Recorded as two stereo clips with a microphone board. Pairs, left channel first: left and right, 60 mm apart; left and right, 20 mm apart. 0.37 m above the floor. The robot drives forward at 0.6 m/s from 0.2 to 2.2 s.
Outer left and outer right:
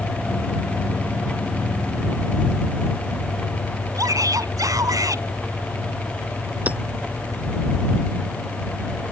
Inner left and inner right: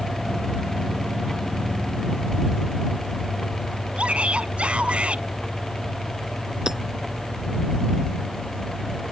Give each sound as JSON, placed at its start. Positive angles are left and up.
{"t": 3.9, "sound": "a shout", "side_deg": -70}
{"t": 6.7, "sound": "hammering", "side_deg": -25}